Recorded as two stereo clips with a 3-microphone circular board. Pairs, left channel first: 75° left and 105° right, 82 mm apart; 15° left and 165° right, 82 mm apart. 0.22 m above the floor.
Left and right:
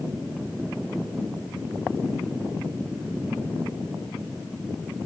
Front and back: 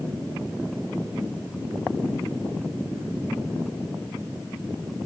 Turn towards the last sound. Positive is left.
No sound to turn to.